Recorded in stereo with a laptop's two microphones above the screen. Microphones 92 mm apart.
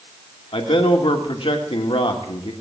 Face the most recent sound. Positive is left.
turn(degrees=75)  # may be behind; listen again after turning